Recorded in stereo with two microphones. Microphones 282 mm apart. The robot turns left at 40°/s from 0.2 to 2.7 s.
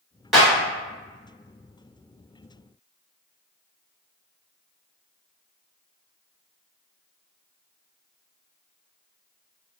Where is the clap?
Centre (ahead or behind), 1.3 m; by 0.5 s 5° right (ahead or behind), 1.3 m.